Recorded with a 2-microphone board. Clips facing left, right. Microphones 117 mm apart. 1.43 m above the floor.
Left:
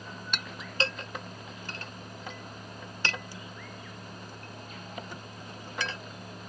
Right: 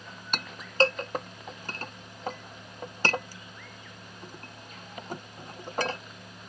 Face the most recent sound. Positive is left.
turn(degrees=-40)  # may be behind; listen again after turning